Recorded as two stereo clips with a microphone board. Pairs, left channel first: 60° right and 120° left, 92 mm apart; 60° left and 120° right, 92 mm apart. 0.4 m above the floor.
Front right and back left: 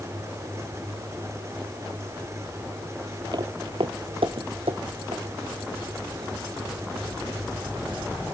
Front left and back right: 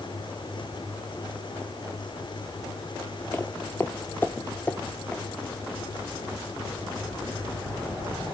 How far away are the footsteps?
About 0.5 m.